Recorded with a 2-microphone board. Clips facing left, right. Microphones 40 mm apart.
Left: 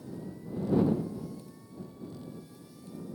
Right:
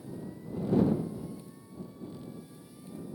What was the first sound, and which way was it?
Only background noise.